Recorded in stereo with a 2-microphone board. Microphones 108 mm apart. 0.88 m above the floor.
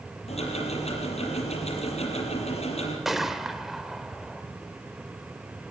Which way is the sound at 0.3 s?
75° left (ahead or behind).